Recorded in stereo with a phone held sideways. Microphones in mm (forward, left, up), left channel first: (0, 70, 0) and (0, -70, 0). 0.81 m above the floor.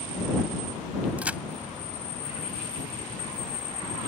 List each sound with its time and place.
1.2 s a crack: 10° right (ahead or behind)